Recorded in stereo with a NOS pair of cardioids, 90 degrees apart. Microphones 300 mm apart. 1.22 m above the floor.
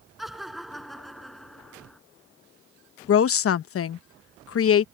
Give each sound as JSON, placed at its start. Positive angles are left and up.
{"t": 0.2, "sound": "laughter", "azimuth_deg": 0}
{"t": 3.1, "sound": "a woman speaking", "azimuth_deg": 50}